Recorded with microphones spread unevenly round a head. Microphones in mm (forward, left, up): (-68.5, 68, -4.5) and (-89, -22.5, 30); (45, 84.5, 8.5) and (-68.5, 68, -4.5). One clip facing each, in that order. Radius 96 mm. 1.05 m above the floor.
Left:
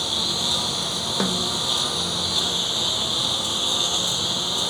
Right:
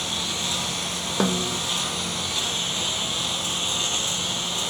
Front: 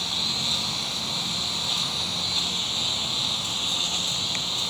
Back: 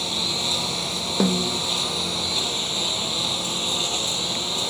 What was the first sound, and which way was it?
A lawn mower, 150° left.